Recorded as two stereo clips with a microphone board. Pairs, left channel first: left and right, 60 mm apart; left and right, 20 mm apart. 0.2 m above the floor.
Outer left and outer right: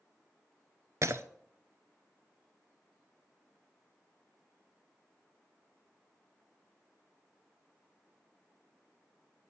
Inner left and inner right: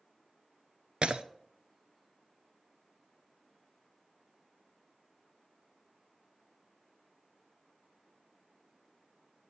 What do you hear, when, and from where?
1.0 s breaking glass: 60° right (ahead or behind), 0.6 m